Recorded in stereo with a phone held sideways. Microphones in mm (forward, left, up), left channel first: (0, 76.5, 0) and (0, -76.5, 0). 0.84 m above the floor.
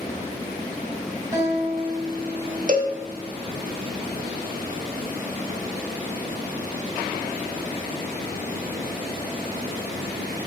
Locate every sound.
1.3 s a guitar: 20° right (ahead or behind), 3.5 m
2.7 s a cowbell: 55° right (ahead or behind), 1.0 m